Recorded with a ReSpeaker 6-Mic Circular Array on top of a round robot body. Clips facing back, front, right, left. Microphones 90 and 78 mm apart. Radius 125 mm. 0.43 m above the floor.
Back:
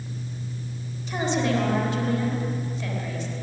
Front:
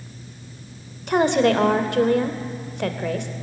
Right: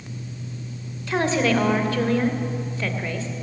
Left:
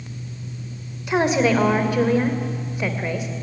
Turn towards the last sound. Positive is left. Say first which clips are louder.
# front 7 dB, left 3 dB
turn(degrees=15)